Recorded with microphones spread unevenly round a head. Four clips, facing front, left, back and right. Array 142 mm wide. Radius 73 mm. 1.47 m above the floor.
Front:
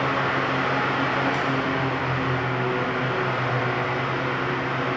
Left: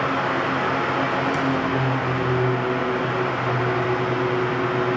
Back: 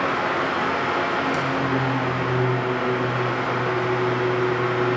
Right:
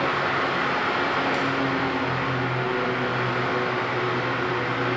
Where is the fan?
120° left, 0.7 m.